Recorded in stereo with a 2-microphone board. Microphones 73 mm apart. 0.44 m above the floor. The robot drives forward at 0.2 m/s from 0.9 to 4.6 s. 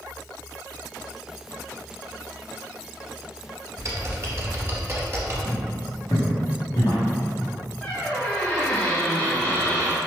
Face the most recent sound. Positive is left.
turn(degrees=25)  # may be behind; listen again after turning